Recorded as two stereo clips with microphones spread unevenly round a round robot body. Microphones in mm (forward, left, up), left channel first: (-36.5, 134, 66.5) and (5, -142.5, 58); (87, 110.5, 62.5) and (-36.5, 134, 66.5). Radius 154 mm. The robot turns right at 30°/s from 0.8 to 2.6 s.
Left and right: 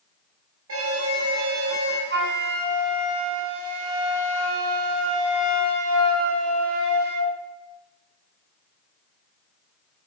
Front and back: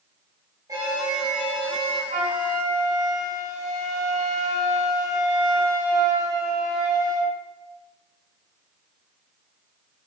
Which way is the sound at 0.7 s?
120° right.